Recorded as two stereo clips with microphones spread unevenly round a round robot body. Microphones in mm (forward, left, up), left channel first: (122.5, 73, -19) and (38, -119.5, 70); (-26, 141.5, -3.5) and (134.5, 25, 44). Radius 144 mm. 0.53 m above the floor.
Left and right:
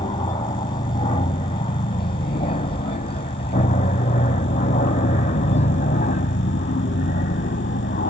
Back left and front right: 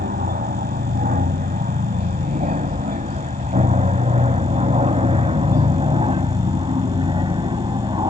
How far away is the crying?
I don't hear crying.